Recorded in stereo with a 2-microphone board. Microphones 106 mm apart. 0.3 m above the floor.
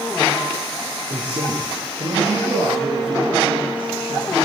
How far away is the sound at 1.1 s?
About 5.5 m.